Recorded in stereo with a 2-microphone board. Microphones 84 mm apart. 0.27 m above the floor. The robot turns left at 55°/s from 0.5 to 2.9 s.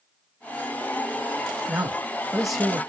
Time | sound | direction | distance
1.7 | a man speaking | 15° right (ahead or behind) | 1.0 m